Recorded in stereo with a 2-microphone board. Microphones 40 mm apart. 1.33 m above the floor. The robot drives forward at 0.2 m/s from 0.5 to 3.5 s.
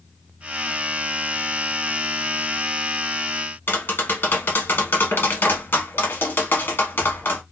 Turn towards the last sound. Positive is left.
turn(degrees=65)  # may be behind; listen again after turning